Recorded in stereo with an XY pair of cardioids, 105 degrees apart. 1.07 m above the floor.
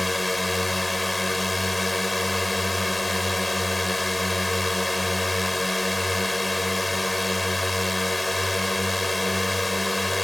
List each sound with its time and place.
0.0 s a drone: 15° left